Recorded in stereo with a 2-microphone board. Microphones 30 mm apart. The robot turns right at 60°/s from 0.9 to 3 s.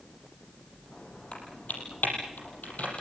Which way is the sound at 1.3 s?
40° left (ahead or behind).